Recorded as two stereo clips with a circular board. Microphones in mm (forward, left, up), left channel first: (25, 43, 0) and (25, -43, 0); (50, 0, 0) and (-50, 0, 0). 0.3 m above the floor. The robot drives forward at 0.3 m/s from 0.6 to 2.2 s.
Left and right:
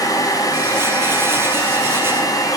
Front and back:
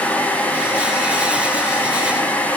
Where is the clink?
I don't hear a clink.